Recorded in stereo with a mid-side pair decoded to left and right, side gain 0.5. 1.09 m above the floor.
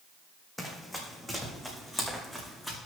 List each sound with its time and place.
0.6 s running footsteps: 10° left, 3.5 m; by 2.8 s 5° left, 5.5 m